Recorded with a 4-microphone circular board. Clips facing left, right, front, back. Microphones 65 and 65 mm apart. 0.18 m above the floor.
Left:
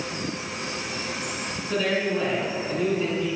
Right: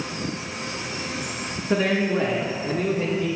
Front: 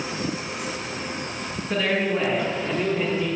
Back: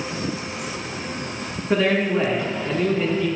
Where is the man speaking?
130° right, 1.4 m; by 3.3 s 75° right, 1.8 m.